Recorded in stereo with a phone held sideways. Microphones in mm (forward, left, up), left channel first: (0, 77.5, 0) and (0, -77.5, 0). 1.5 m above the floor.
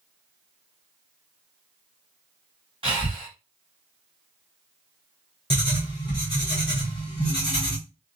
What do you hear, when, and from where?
2.8 s breathing: 30° right (ahead or behind), 1.5 m
5.5 s writing: 30° left (ahead or behind), 1.3 m